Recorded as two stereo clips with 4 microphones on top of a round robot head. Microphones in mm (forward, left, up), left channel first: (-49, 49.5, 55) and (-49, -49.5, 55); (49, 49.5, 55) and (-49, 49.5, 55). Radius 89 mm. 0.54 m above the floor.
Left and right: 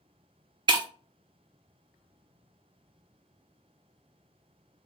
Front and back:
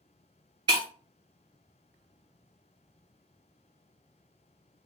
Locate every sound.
0.7 s breaking glass: 135° right, 0.6 m